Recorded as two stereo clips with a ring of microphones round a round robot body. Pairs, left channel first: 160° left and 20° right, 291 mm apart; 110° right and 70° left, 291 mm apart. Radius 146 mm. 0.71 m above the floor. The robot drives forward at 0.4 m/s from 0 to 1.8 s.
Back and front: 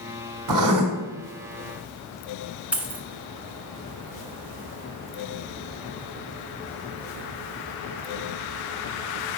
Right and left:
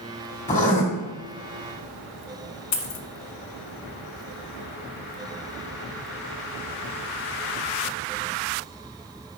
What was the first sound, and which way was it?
Writing, 45° right.